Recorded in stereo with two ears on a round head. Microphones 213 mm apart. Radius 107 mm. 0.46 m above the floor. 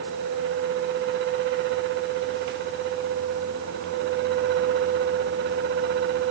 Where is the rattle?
I don't hear a rattle.